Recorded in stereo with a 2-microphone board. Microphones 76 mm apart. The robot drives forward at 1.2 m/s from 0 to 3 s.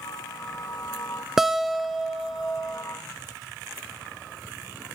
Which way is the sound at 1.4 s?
5° right (ahead or behind).